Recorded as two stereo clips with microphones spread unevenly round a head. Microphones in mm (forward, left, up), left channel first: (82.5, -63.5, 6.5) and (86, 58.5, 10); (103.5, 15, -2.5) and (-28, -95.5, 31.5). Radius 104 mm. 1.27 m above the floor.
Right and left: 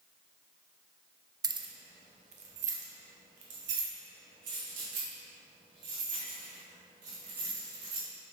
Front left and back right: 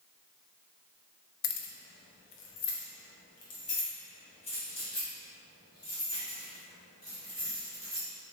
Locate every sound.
1.4 s keys jangling: 30° left, 0.7 m; by 8.1 s 115° left, 4 m